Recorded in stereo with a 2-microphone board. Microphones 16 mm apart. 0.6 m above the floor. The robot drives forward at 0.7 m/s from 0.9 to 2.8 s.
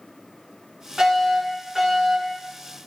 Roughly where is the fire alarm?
Right.